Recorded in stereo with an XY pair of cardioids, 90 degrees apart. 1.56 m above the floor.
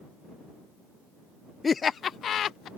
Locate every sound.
1.6 s laughter: 35° left; by 2.7 s 75° left